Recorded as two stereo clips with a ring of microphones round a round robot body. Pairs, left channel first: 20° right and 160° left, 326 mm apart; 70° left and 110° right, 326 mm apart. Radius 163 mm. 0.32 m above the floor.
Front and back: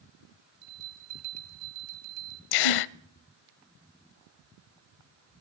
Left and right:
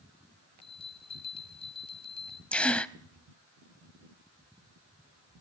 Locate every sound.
0.6 s a bell: 140° left, 2.5 m
2.5 s a gasp: 20° right, 0.6 m